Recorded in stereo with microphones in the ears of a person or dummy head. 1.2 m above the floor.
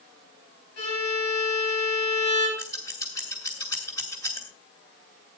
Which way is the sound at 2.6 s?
15° left (ahead or behind).